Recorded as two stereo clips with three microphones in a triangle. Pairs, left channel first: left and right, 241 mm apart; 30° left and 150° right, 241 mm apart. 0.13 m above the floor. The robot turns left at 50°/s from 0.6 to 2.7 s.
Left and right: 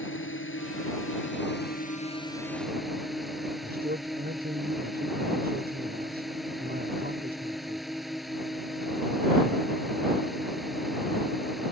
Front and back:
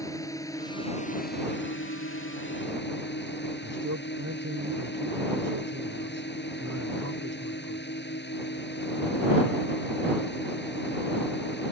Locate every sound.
0.0 s a drone: 105° left; by 11.7 s straight ahead
3.6 s a man speaking: 145° right